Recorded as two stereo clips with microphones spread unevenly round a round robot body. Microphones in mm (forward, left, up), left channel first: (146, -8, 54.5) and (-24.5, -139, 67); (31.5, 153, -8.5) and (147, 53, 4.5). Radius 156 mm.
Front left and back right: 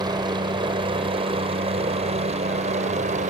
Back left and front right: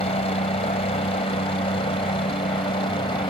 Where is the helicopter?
155° left; by 3.3 s straight behind.